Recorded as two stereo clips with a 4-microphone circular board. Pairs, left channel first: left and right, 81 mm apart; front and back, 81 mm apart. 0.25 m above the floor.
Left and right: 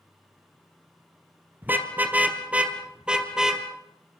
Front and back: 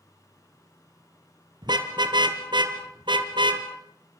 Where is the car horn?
155° right, 3.5 m; by 3.6 s 175° right, 3.5 m.